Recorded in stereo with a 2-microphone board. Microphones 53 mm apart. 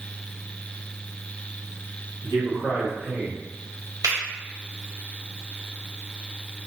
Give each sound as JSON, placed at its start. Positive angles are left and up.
{"t": 2.2, "sound": "a man speaking", "side_deg": -65, "distance_m": 1.5}
{"t": 4.0, "sound": "a finger snap", "side_deg": -70, "distance_m": 1.9}